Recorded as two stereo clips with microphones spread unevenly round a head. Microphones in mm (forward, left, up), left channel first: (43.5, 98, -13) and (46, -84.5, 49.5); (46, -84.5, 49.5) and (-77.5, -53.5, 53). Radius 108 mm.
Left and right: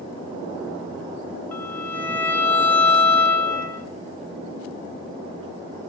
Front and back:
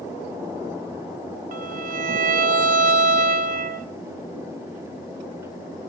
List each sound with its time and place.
1.5 s a violin: 175° left, 2 m